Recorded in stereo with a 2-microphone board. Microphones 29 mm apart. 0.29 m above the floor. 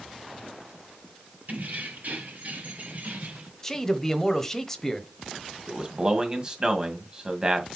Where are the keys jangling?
70° right (ahead or behind), 4.5 m; by 3.5 s 55° right (ahead or behind), 3 m.